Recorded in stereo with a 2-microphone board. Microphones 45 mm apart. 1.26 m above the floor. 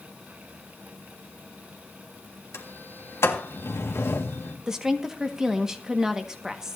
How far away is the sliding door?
About 1.9 m.